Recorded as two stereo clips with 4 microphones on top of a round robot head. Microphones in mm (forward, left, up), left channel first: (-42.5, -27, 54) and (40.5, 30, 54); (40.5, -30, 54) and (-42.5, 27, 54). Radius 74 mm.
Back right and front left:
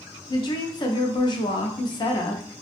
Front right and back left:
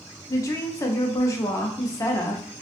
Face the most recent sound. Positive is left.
turn(degrees=-95)